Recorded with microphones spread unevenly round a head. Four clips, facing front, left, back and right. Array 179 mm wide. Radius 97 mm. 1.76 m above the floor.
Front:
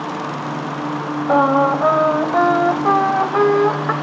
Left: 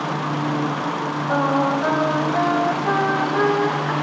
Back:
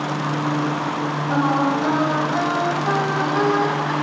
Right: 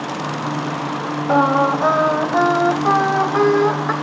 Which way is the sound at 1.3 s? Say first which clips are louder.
Right 5 dB, front 6 dB; 30° right.